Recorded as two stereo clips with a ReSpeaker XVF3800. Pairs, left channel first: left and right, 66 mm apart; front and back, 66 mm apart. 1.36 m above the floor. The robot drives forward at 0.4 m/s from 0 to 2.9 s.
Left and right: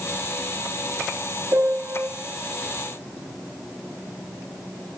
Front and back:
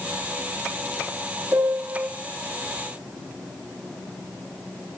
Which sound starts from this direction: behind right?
A piano, at 1.5 s.